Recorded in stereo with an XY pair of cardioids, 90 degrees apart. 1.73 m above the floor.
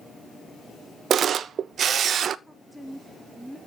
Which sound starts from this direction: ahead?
A woman speaking, at 2.5 s.